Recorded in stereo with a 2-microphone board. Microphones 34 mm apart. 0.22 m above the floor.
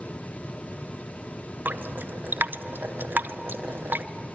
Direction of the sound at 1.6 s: 75° right (ahead or behind).